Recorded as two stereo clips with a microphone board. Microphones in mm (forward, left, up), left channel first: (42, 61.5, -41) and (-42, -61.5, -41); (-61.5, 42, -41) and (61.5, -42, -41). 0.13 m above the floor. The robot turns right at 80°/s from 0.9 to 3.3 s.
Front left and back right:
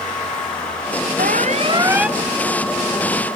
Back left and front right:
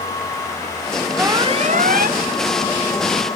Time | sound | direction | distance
1.2 | an alarm | 110° right | ?